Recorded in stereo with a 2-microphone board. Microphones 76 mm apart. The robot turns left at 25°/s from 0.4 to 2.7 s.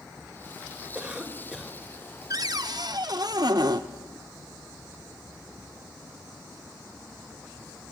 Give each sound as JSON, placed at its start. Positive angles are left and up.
{"t": 0.9, "sound": "a cough", "side_deg": -15, "distance_m": 3.0}
{"t": 2.3, "sound": "a cupboard door", "side_deg": -55, "distance_m": 0.9}